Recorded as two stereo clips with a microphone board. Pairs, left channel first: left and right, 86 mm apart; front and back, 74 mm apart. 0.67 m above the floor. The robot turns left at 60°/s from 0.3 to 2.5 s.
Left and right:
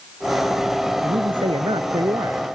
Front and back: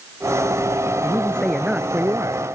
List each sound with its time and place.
1.0 s a man speaking: 60° right; by 2.4 s 145° right